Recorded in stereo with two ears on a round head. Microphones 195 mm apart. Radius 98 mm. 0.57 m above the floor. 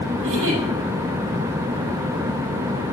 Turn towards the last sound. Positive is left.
turn(degrees=-60)  # may be behind; listen again after turning